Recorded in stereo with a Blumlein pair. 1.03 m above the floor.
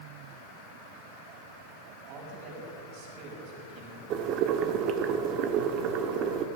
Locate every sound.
2.1 s a man speaking: 45° right, 6.5 m
4.1 s boiling: 35° right, 1.2 m